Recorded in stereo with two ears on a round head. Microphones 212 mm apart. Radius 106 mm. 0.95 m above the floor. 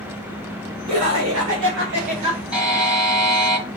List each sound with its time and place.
0.9 s laughter: 80° right, 1.4 m; by 2.4 s 20° right (ahead or behind), 0.9 m
2.5 s a buzzer: 5° right (ahead or behind), 1.6 m